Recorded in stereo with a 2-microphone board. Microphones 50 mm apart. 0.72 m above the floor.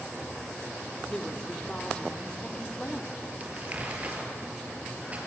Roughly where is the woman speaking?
Centre.